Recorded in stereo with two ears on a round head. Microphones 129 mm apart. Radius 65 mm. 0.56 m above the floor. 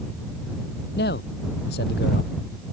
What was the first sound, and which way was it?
A man speaking, 85° left.